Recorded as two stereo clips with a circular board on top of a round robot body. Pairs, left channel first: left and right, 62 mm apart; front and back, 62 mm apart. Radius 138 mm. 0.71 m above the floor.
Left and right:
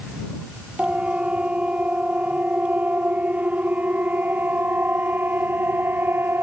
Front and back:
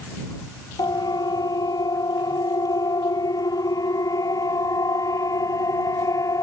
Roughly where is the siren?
Ahead.